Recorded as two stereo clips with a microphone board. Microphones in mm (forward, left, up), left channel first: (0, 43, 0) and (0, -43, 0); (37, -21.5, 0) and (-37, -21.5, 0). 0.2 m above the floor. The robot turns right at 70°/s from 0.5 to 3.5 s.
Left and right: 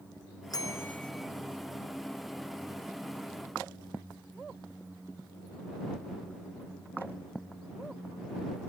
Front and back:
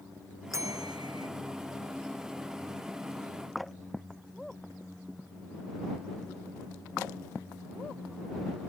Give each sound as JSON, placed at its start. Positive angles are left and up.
{"t": 0.5, "sound": "a bell", "azimuth_deg": 130}